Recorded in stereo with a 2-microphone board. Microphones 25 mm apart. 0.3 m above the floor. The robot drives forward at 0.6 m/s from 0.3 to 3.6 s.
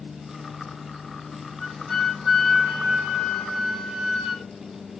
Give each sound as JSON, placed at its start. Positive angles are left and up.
{"t": 1.6, "sound": "a flute", "side_deg": 5, "distance_m": 0.8}